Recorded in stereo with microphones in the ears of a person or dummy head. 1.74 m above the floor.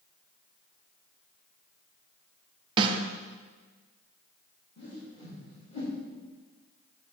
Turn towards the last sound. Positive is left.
turn(degrees=30)  # may be behind; listen again after turning